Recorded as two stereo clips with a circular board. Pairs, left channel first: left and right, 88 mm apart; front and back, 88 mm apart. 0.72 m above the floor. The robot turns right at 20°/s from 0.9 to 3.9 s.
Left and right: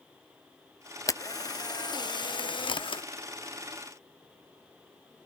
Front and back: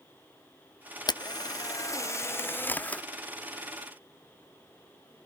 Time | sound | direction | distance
1.1 | a camera shutter | 35° left | 0.5 m